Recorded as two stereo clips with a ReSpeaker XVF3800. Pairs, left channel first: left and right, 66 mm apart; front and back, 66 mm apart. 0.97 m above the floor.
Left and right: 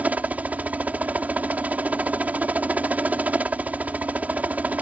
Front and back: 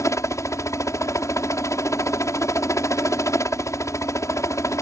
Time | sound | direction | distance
0.0 | a helicopter | 25° right | ?